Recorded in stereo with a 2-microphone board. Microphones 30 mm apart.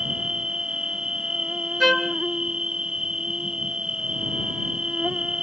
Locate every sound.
0.0 s an insect: 25° right (ahead or behind)
1.8 s a trumpet: 5° left (ahead or behind)